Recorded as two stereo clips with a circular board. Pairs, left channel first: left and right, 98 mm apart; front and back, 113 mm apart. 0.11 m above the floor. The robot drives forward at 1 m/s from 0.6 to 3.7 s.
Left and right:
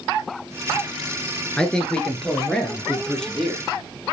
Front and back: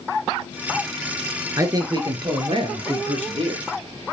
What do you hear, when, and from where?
1.6 s a man speaking: 160° left, 1.8 m; by 3.6 s 175° left, 3.5 m